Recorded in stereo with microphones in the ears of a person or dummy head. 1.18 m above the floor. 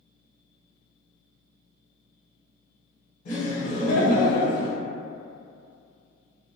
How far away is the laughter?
About 1.2 m.